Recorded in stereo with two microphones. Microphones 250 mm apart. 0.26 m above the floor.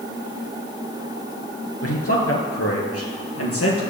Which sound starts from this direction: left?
A man speaking, at 1.8 s.